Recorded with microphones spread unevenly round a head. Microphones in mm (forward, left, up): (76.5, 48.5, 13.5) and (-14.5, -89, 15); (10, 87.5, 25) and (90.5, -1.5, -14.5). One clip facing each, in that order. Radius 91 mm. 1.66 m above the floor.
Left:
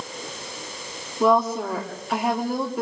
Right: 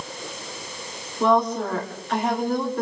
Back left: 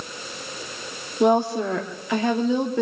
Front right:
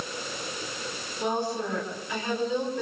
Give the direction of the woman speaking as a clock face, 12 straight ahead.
7 o'clock.